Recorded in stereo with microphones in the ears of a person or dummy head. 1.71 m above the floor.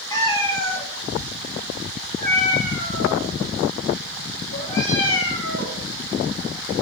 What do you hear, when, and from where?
0.1 s a cat meowing: 25° left (ahead or behind), 2.5 m; by 5.8 s 75° left (ahead or behind), 4 m